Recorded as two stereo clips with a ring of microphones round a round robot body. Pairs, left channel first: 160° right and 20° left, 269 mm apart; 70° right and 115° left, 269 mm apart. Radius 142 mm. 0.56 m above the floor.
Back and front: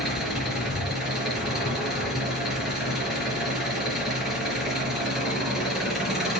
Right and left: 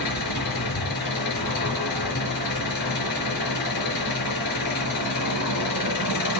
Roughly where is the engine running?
Ahead right.